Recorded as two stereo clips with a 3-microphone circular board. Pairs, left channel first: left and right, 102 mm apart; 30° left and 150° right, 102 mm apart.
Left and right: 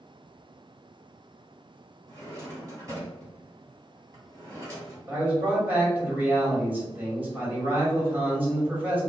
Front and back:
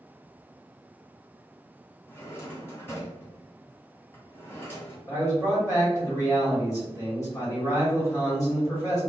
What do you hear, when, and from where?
2.1 s a drawer: 35° right, 1.7 m
5.1 s a man speaking: 20° right, 1.8 m